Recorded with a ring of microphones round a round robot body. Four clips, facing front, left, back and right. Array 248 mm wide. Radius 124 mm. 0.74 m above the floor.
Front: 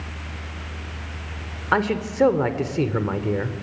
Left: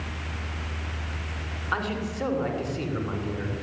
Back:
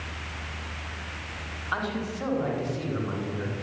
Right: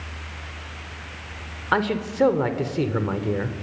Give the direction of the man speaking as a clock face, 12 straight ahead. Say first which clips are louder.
Right 7 dB, front 9 dB; 1 o'clock.